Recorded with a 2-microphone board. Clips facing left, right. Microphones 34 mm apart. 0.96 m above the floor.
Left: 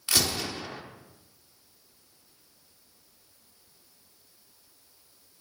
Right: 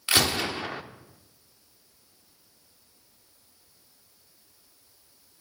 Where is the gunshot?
35° right (ahead or behind), 0.8 m.